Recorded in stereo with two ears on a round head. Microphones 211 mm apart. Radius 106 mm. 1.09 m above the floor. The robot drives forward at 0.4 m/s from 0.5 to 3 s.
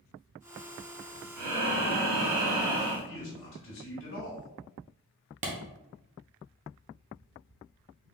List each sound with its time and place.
1.4 s breathing: 50° right (ahead or behind), 1.6 m; by 3.0 s 60° right (ahead or behind), 1.4 m
3.1 s a man speaking: 60° left (ahead or behind), 2 m
5.4 s a clap: 30° right (ahead or behind), 0.9 m